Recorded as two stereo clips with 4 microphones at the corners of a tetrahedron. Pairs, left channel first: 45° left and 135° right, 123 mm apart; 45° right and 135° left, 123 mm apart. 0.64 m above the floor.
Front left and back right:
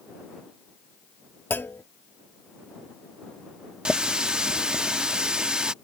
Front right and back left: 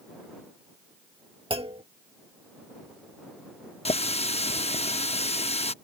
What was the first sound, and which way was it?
A clunk, 115° left.